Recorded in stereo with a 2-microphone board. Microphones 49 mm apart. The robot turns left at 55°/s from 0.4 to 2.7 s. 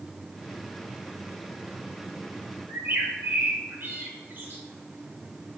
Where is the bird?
45° right (ahead or behind), 1.2 m.